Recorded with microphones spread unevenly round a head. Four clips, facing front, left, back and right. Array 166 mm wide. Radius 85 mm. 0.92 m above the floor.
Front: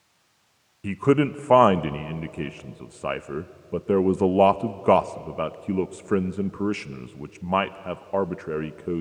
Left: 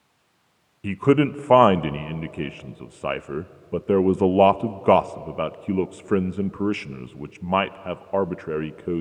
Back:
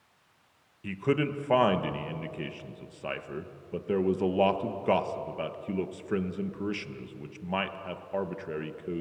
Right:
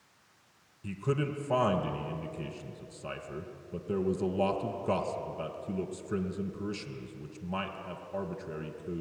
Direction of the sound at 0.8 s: 55° left.